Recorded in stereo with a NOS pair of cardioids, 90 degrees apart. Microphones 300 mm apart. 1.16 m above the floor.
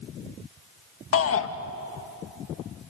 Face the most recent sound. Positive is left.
turn(degrees=50)